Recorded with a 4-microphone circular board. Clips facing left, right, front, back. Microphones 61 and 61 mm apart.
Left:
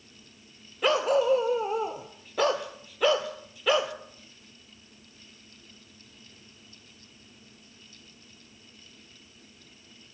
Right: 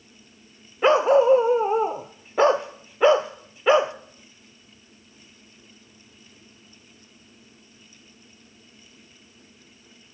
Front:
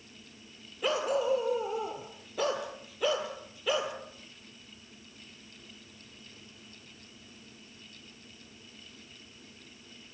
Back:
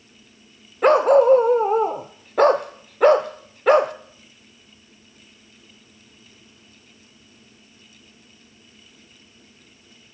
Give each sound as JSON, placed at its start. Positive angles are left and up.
{"t": 0.8, "sound": "a dog barking", "azimuth_deg": -150, "distance_m": 0.8}